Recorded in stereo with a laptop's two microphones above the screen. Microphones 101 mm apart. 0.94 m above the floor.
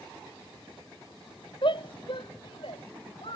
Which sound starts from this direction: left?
A shout, at 1.6 s.